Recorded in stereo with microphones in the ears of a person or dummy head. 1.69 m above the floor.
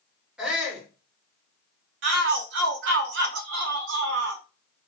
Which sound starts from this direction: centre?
A shout, at 0.4 s.